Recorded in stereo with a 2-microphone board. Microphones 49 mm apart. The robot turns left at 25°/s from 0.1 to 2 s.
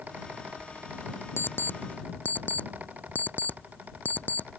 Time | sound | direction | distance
1.4 | an alarm clock | 50° left (ahead or behind) | ?